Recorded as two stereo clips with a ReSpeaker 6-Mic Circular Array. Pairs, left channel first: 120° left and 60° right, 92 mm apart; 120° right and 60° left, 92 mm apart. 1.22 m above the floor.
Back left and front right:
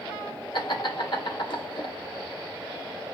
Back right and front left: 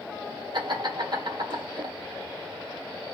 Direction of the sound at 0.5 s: 95° left.